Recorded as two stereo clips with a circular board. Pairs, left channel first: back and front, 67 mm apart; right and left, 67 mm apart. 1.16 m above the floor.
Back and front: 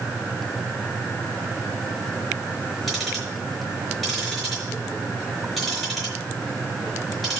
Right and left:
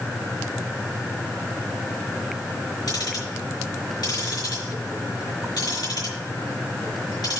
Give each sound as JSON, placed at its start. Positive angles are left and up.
{"t": 2.9, "sound": "ticking", "azimuth_deg": -90, "distance_m": 5.0}